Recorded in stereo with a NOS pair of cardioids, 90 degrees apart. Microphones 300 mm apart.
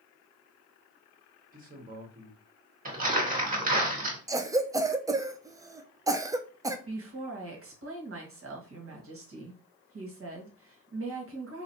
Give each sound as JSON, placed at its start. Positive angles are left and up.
{"t": 1.5, "sound": "a man speaking", "azimuth_deg": -25, "distance_m": 1.5}
{"t": 2.9, "sound": "crumpling", "azimuth_deg": -25, "distance_m": 1.8}
{"t": 4.3, "sound": "a cough", "azimuth_deg": -10, "distance_m": 0.5}
{"t": 6.9, "sound": "a woman speaking", "azimuth_deg": -45, "distance_m": 1.5}